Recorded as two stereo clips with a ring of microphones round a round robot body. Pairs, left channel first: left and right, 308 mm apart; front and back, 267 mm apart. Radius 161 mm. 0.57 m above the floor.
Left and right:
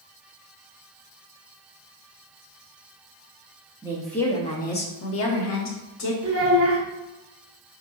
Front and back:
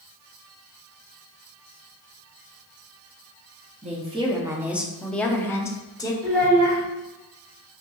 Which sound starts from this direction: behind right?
A child speaking, at 6.2 s.